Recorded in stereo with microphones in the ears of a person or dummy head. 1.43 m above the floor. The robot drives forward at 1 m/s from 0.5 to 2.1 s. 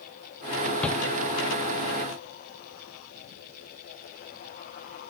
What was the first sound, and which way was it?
A shout, 10° left (ahead or behind).